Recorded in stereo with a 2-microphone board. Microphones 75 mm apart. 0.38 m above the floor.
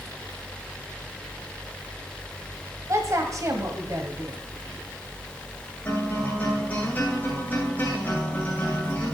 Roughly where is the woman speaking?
Right.